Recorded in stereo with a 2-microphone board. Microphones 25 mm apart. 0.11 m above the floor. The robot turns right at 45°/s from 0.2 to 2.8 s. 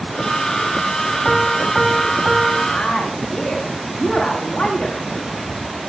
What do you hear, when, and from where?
1.2 s a piano: 160° left, 3.5 m; by 2.6 s 140° right, 3.5 m
2.7 s a woman speaking: 70° left (ahead or behind), 8.5 m; by 5.0 s 65° left (ahead or behind), 8.5 m